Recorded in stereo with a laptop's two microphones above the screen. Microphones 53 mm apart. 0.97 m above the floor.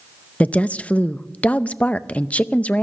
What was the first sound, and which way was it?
A woman speaking, 25° left (ahead or behind).